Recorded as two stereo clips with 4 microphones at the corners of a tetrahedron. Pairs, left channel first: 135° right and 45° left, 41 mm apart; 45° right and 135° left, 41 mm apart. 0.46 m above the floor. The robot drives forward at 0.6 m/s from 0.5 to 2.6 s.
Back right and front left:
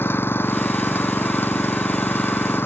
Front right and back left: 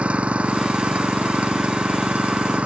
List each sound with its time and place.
0.0 s an engine running: 165° right